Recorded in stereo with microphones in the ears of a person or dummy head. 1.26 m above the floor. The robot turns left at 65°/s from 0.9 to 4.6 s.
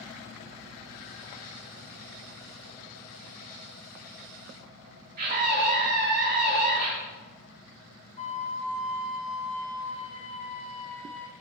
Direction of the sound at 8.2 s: 40° left (ahead or behind).